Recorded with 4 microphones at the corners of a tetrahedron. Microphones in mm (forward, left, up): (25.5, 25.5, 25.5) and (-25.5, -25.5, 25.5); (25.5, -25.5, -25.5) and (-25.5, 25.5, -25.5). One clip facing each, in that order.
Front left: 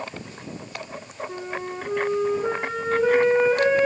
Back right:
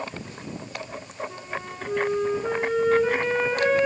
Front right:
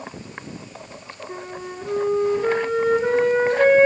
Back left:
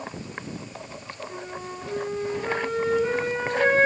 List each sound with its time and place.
1.3 s a flute: 10° right, 4 m